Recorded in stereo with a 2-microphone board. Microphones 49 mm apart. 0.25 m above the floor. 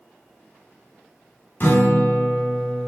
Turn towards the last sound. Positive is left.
turn(degrees=45)  # may be behind; listen again after turning